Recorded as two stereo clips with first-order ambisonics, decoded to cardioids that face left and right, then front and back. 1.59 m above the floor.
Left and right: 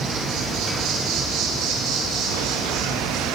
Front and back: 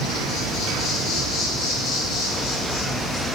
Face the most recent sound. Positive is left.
turn(degrees=-50)